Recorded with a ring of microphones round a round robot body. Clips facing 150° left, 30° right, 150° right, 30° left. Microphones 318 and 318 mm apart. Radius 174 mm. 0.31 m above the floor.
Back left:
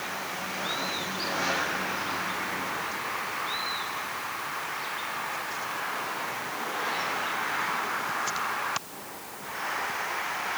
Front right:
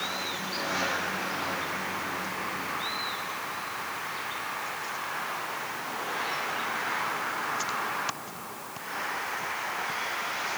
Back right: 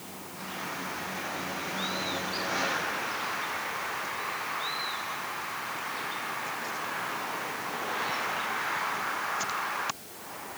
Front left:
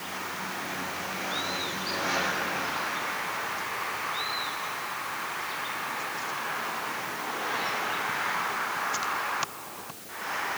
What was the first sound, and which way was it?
Only background noise.